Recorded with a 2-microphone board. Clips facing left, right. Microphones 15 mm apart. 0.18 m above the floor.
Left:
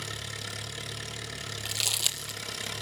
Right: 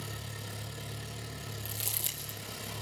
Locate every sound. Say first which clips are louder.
0.0 s an engine running: left 6 dB; 60° left (ahead or behind), 2.5 m
1.6 s crumpling: left 11 dB; 55° left (ahead or behind), 1.0 m